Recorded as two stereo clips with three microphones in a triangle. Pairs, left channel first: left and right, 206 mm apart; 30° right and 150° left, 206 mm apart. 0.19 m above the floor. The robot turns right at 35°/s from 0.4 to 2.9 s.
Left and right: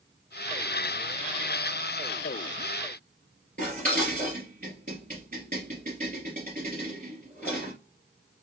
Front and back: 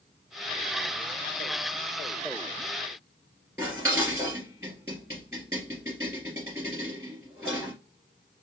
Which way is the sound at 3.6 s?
135° right.